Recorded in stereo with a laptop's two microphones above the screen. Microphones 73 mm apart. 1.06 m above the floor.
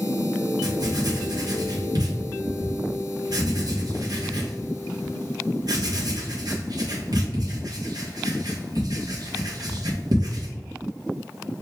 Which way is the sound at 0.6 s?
60° right (ahead or behind).